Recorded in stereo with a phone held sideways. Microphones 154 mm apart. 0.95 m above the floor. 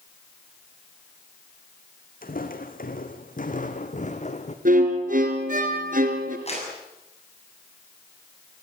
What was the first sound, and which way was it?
Footsteps, 65° left (ahead or behind).